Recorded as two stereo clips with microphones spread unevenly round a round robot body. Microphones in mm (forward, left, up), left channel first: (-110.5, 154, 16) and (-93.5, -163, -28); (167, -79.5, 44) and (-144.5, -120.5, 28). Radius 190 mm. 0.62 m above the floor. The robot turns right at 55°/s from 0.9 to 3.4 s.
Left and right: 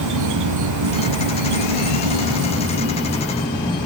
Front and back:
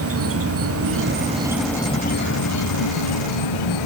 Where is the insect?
120° right, 1.2 m; by 3.9 s 15° left, 1.2 m.